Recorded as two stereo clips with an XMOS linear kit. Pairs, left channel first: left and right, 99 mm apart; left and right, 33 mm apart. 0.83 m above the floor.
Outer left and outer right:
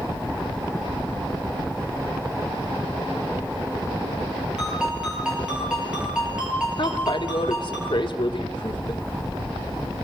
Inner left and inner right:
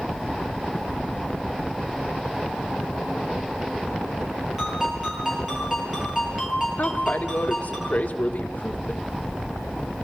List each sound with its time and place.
4.6 s a ringtone: 10° right (ahead or behind), 9.5 m
6.8 s a woman speaking: 55° left (ahead or behind), 1.8 m